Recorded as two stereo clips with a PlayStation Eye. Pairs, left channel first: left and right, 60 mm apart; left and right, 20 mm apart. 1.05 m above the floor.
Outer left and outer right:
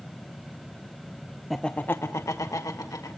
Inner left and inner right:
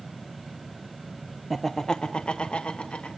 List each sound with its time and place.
1.5 s laughter: centre (ahead or behind), 0.6 m; by 3.1 s 75° left (ahead or behind), 1.7 m